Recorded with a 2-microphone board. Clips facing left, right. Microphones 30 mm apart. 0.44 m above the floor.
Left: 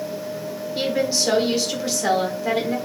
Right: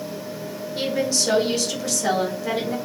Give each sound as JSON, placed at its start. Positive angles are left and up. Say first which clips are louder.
{"t": 0.8, "sound": "a woman speaking", "louder": "left 1 dB", "side_deg": 25, "distance_m": 1.2}